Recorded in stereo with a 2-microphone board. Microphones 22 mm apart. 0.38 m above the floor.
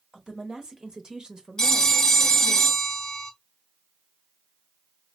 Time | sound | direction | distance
0.1 | a woman speaking | 40° right (ahead or behind) | 1.4 m
1.6 | a phone ringing | 30° left (ahead or behind) | 1.0 m